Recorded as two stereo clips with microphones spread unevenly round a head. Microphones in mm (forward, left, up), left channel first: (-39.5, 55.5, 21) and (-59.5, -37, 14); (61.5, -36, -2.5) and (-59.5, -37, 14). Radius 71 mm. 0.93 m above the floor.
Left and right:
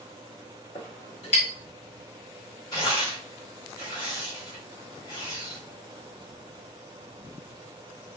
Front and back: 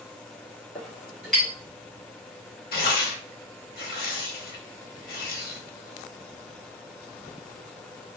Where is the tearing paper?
15° left, 0.8 m.